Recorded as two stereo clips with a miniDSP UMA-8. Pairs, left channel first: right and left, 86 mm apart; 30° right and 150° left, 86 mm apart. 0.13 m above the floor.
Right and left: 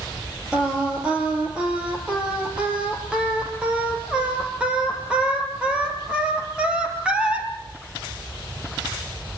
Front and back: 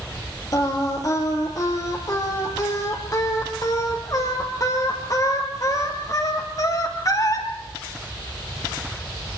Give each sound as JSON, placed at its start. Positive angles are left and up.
{"t": 0.5, "sound": "singing", "azimuth_deg": 15, "distance_m": 3.5}